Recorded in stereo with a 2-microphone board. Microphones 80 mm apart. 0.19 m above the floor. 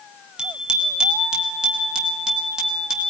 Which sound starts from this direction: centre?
A bicycle bell, at 0.4 s.